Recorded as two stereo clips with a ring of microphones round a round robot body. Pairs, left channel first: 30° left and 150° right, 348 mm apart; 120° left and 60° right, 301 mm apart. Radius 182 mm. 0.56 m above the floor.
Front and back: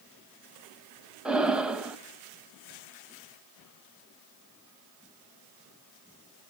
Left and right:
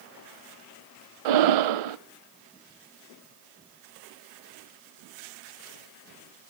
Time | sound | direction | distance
1.2 | breathing | 65° right | 0.8 m